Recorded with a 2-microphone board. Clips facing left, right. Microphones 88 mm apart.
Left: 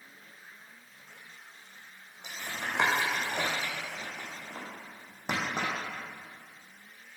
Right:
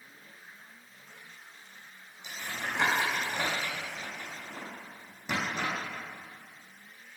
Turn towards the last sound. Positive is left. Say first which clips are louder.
# even
turn(degrees=50)  # may be behind; listen again after turning